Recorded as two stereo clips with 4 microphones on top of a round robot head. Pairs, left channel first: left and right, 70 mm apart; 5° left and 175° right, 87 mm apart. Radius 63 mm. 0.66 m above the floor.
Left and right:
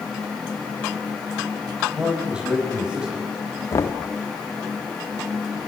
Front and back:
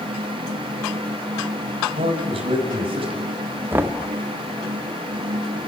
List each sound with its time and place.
1.9 s a man speaking: 170° right, 5 m
3.7 s knocking: 130° left, 1.4 m